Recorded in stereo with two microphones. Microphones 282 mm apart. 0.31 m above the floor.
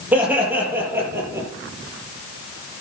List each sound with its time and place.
0.1 s laughter: 5° right (ahead or behind), 8 m; by 1.5 s 10° right (ahead or behind), 6.5 m